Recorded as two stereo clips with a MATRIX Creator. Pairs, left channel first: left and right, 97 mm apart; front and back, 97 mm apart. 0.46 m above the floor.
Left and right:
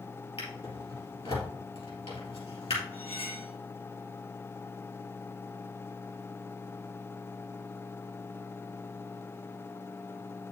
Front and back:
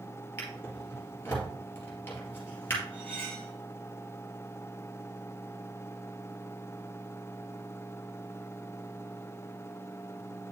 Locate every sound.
0.4 s a drawer: 65° left, 3 m
2.9 s cutlery clinking: 80° left, 2 m